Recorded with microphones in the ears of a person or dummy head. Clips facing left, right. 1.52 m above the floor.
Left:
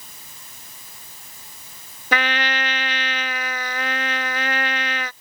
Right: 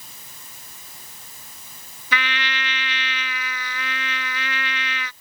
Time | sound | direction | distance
2.1 | a trumpet | 45° left (ahead or behind) | ?